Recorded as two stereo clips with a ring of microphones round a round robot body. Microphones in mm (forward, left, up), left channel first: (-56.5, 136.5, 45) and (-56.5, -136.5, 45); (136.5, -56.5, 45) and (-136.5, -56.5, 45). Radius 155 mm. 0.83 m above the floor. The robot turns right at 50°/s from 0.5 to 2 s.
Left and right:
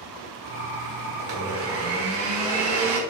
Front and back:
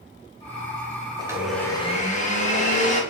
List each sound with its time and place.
1.2 s a blender: 105° right, 1.0 m; by 3.0 s 65° right, 1.0 m